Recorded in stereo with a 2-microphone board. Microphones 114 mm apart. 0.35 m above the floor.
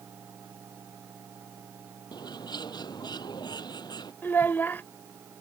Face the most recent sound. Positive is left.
turn(degrees=15)  # may be behind; listen again after turning